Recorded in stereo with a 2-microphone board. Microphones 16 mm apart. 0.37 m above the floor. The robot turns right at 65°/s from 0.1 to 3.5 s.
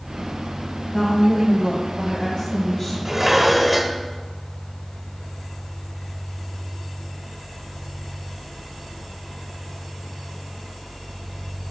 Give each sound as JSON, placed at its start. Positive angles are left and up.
{"t": 0.9, "sound": "a woman speaking", "azimuth_deg": 30, "distance_m": 1.9}
{"t": 3.0, "sound": "dishes clattering", "side_deg": -25, "distance_m": 0.9}